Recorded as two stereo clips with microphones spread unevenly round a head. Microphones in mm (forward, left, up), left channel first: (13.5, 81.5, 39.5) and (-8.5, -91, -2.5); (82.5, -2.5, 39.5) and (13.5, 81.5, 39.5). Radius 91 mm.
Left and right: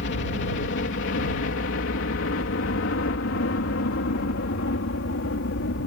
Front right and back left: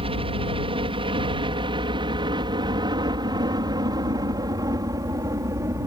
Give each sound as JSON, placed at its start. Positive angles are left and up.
{"t": 0.0, "sound": "a helicopter", "azimuth_deg": 110}